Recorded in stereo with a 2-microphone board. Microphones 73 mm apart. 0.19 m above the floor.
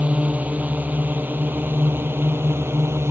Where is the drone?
20° right (ahead or behind); by 3.1 s 35° right (ahead or behind).